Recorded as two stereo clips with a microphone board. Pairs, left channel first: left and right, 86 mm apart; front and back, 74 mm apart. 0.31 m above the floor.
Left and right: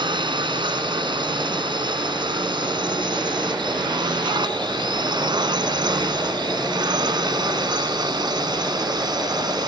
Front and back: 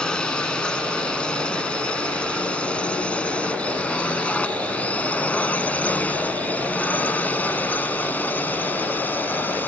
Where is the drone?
80° right; by 9.7 s 65° right.